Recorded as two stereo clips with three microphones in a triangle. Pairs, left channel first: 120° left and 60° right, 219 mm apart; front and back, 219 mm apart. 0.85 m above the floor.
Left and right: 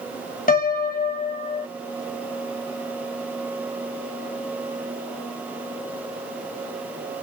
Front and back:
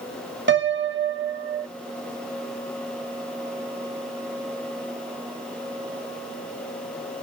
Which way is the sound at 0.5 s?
160° left.